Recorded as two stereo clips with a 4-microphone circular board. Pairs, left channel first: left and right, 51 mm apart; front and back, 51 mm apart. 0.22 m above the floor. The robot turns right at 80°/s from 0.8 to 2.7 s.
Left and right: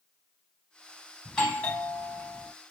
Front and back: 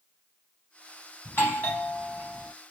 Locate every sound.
1.2 s a doorbell: 10° left, 1.7 m; by 2.5 s 110° left, 1.7 m